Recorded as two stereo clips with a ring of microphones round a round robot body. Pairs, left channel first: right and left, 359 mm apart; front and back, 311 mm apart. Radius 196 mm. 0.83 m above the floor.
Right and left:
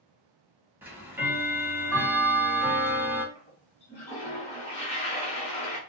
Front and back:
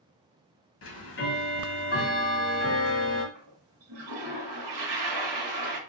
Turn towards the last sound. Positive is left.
turn(degrees=-160)